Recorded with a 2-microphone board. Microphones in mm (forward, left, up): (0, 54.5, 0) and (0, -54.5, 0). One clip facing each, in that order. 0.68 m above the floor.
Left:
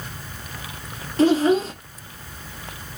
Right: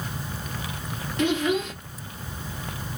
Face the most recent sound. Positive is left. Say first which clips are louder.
# left 7 dB
turn(degrees=35)  # may be behind; listen again after turning